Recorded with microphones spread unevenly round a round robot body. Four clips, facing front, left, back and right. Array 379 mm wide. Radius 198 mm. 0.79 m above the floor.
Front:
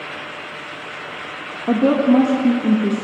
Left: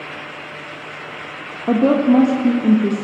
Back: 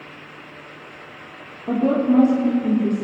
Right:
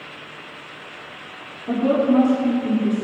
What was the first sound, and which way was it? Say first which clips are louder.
A woman speaking: left 4 dB, front 4 dB; 55° left.